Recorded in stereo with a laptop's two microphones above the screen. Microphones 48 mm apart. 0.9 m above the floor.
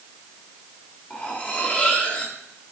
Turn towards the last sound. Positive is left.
turn(degrees=35)  # may be behind; listen again after turning